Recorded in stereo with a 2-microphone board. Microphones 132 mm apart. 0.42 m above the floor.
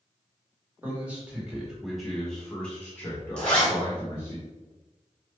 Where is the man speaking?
15° right (ahead or behind), 1.4 m; by 4.4 s 25° left (ahead or behind), 1.5 m.